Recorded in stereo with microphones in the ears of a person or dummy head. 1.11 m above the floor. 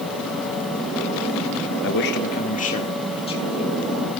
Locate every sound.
1.8 s a man speaking: 60° left (ahead or behind), 1.3 m; by 3.7 s 30° left (ahead or behind), 4 m